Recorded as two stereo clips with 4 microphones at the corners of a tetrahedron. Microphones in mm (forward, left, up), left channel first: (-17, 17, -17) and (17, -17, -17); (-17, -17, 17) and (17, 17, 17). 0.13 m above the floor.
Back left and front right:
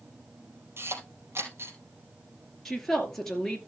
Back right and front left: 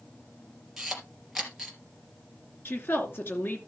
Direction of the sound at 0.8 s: 40° right.